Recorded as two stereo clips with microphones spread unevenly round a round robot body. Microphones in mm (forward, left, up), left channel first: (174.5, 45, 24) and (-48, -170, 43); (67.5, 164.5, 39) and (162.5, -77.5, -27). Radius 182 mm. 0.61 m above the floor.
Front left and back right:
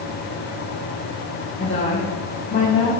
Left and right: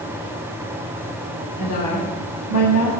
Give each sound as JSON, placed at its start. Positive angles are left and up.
{"t": 1.6, "sound": "a woman speaking", "azimuth_deg": 115, "distance_m": 3.0}